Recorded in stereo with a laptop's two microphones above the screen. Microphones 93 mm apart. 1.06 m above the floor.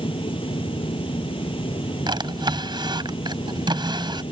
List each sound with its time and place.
0.0 s a fan: 70° left (ahead or behind)
2.1 s a drawer: 55° right (ahead or behind)